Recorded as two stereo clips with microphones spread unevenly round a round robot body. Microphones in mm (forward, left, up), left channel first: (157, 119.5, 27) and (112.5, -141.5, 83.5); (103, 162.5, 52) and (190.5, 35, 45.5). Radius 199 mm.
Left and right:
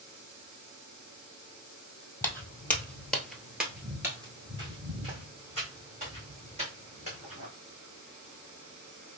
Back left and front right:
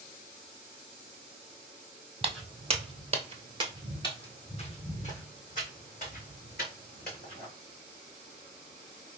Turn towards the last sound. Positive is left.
turn(degrees=-170)